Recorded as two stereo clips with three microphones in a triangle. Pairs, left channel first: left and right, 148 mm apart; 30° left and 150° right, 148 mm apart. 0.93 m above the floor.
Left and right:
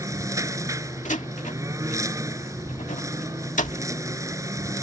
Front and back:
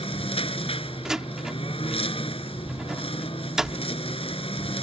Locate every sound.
0.0 s a lawn mower: 20° right
1.1 s a door slam: 125° left